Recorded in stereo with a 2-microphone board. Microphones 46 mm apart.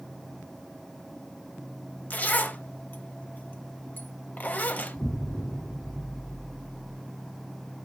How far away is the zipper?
About 0.8 m.